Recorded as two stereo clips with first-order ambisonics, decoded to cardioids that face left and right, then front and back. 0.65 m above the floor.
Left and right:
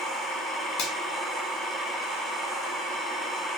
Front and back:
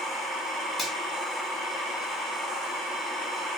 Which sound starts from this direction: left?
A finger snap, at 0.8 s.